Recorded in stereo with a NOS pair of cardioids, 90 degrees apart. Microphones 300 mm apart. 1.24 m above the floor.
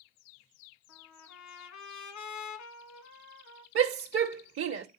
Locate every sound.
0.9 s a trumpet: 70° left, 1.7 m
3.8 s a shout: 45° right, 1.0 m